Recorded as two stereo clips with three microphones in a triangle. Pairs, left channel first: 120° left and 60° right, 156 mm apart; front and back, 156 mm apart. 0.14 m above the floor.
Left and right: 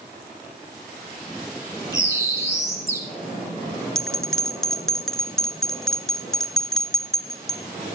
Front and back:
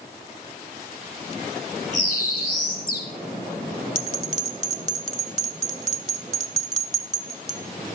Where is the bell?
35° left, 0.6 m.